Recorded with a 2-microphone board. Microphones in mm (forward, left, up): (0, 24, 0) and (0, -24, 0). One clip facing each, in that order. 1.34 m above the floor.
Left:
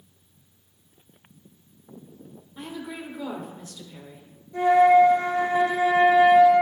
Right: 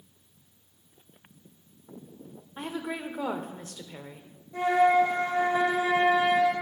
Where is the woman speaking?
45° right (ahead or behind), 0.9 m.